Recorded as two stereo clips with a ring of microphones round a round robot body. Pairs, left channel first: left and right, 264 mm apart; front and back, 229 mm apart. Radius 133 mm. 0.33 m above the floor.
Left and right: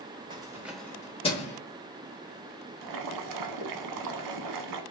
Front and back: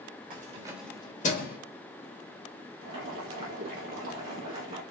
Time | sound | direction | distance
0.3 | keys jangling | 155° right | 0.7 m
2.8 | boiling | 110° right | 0.6 m